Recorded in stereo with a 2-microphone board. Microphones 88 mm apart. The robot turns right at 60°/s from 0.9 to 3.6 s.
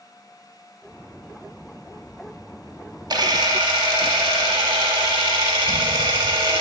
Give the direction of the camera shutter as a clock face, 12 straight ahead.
4 o'clock.